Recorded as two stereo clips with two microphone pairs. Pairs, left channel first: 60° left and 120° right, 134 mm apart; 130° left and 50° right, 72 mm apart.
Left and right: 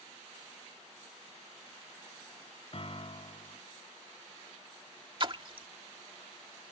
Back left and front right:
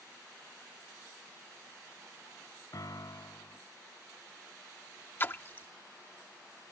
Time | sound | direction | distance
2.7 | a piano | 105° left | ?
5.2 | a splash | 170° right | ?